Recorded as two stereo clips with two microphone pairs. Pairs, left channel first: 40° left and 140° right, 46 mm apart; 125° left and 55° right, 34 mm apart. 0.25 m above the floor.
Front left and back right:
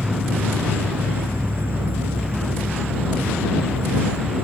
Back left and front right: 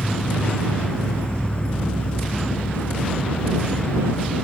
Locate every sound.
0.0 s an insect: straight behind